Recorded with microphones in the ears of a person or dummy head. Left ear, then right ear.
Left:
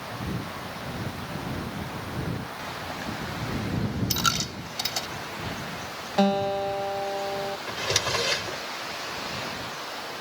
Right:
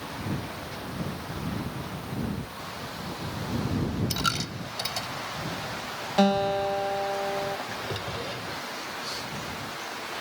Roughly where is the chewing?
I don't hear chewing.